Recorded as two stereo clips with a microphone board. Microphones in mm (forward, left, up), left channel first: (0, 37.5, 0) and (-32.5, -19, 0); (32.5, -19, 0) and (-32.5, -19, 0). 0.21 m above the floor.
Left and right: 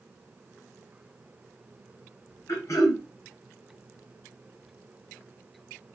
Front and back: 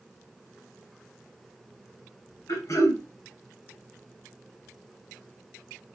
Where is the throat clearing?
25° left, 3.5 m.